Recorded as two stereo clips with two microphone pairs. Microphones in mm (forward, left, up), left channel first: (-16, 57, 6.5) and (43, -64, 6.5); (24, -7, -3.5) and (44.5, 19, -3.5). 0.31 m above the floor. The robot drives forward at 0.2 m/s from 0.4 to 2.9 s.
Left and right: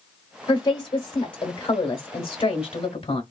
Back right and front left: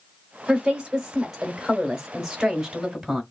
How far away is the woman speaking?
About 1.2 m.